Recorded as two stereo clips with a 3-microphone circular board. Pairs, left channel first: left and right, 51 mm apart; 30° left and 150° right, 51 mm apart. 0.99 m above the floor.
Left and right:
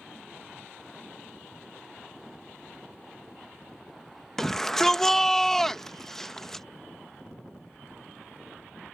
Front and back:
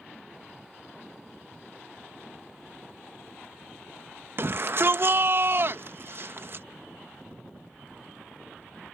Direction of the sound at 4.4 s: 175° left.